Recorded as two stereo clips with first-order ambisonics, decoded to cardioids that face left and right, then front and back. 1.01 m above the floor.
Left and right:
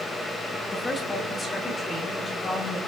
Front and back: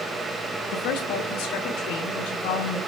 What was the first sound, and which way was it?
A woman speaking, 15° left.